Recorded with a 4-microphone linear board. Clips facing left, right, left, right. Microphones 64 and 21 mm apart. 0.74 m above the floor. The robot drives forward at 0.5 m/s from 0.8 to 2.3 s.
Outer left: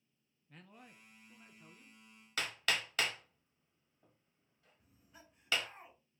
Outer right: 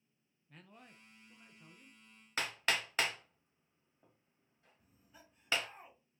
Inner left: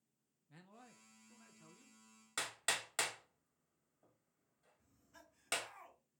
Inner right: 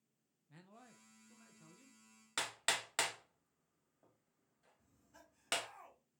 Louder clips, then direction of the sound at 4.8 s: Outer left 1 dB, inner left 1 dB; centre (ahead or behind).